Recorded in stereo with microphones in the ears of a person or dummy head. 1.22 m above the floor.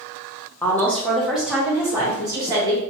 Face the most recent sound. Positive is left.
turn(degrees=-25)  # may be behind; listen again after turning